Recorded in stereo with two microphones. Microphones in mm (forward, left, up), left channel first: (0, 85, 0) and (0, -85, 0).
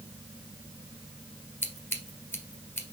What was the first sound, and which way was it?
Scissors, 10° left (ahead or behind).